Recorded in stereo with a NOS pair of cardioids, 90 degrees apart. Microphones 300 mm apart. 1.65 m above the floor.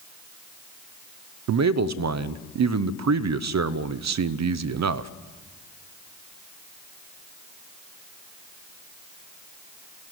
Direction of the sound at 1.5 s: 60° right.